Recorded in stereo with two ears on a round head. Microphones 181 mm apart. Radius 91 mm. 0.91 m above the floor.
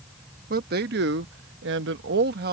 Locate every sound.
0.5 s a man speaking: 45° right (ahead or behind); by 2.5 s 50° right (ahead or behind)